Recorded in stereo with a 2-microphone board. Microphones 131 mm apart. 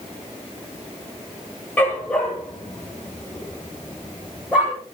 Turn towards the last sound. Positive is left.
turn(degrees=-10)  # may be behind; listen again after turning